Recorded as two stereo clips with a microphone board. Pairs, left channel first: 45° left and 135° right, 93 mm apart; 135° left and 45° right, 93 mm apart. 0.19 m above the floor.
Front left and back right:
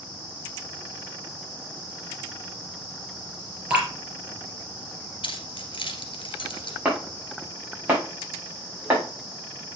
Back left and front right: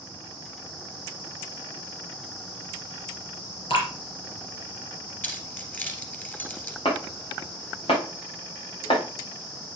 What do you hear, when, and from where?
3.7 s dripping: 150° left, 4 m
5.2 s keys jangling: 65° left, 2.0 m
6.8 s chopping: 155° left, 4.5 m